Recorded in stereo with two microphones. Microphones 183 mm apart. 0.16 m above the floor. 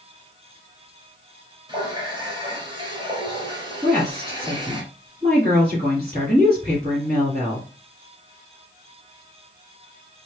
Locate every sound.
1.7 s a running tap: 25° right (ahead or behind), 2.0 m
3.8 s a woman speaking: 40° right (ahead or behind), 1.6 m